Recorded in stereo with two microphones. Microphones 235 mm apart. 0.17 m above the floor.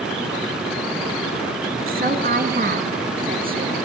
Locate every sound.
1.9 s a woman speaking: 40° right (ahead or behind), 2 m